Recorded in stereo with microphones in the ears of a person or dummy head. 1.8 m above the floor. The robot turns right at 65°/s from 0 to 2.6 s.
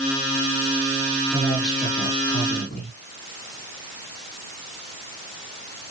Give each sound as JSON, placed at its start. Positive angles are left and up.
{"t": 1.3, "sound": "a man speaking", "azimuth_deg": 0, "distance_m": 3.5}